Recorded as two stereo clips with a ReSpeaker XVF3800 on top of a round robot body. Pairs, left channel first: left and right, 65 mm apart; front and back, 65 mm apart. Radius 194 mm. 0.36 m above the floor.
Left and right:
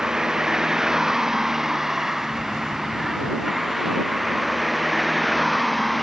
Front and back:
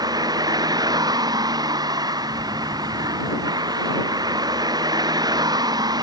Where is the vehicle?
170° right; by 6.0 s straight behind.